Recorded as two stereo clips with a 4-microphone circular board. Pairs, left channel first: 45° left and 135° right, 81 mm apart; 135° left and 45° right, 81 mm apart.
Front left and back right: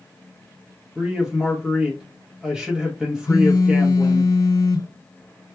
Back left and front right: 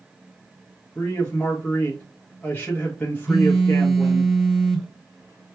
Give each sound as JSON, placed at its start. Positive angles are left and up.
{"t": 0.9, "sound": "a man speaking", "azimuth_deg": 155, "distance_m": 1.1}
{"t": 3.3, "sound": "a phone buzzing", "azimuth_deg": 40, "distance_m": 0.6}